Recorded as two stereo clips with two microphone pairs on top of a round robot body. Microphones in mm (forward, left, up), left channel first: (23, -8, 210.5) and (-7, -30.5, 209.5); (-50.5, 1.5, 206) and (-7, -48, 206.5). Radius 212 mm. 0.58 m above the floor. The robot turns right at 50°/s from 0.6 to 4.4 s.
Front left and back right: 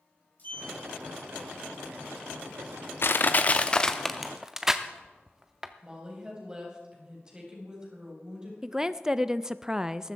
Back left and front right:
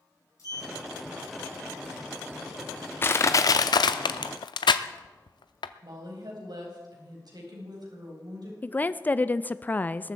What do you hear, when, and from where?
0.4 s a sliding door: 85° left, 3.5 m; by 4.0 s 105° right, 3.5 m
3.0 s crushing: 70° left, 0.5 m; by 5.7 s 140° left, 0.5 m
5.8 s a woman speaking: 70° right, 4 m
8.6 s a woman speaking: 165° left, 0.7 m